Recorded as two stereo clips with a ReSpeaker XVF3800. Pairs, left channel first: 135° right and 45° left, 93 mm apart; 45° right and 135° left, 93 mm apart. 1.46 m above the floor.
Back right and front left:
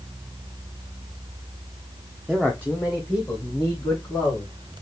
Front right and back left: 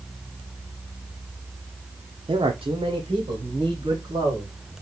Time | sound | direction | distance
2.3 | a man speaking | 135° left | 0.5 m